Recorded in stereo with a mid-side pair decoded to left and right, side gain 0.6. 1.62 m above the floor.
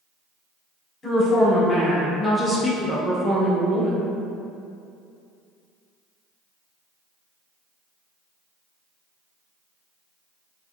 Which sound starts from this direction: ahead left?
A woman speaking, at 1.0 s.